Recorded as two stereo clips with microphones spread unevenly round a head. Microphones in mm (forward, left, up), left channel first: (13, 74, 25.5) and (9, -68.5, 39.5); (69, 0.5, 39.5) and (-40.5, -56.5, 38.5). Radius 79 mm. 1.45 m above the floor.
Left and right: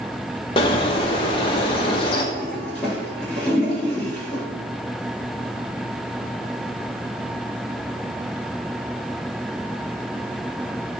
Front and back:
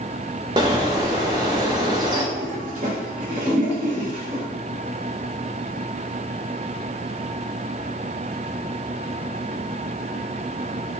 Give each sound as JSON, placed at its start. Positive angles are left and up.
{"t": 0.6, "sound": "a bird", "azimuth_deg": 145, "distance_m": 0.8}
{"t": 2.3, "sound": "a toilet flushing", "azimuth_deg": 170, "distance_m": 3.0}